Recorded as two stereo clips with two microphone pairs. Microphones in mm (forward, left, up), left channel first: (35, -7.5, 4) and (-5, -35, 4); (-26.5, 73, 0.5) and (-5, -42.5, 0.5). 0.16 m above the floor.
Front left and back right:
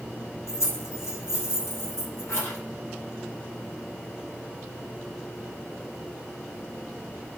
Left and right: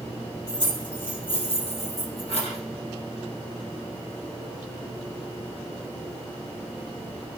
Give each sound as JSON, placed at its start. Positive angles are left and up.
{"t": 0.5, "sound": "keys jangling", "azimuth_deg": 50, "distance_m": 3.5}